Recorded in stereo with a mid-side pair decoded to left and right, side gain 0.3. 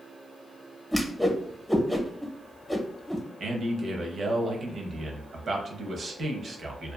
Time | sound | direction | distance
0.9 | a whoosh | 5° left | 0.8 m
3.4 | a man speaking | 70° right | 0.7 m